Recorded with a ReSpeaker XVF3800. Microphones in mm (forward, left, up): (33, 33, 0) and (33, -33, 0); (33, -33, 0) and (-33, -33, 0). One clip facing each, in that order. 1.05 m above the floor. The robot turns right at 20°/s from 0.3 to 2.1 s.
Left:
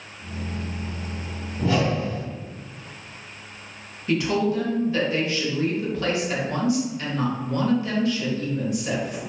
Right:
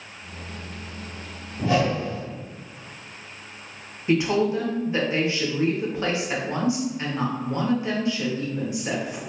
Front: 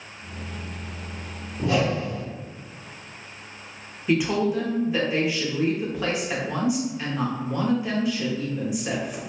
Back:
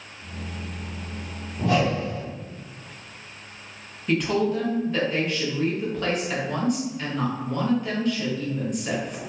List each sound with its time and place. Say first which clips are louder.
1.6 s a whoosh: right 1 dB, back 1 dB; 160° right, 1.4 m; by 2.2 s 150° right, 1.4 m
4.1 s a woman speaking: right 1 dB, front 1 dB; 70° right, 0.7 m